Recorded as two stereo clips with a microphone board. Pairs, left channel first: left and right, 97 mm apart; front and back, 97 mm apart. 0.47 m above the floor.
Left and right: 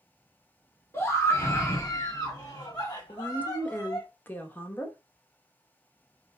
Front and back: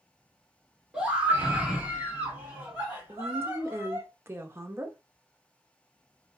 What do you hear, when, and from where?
0.9 s a scream: 115° left, 1.3 m; by 4.1 s 120° left, 2.5 m
3.1 s a woman speaking: 145° left, 0.8 m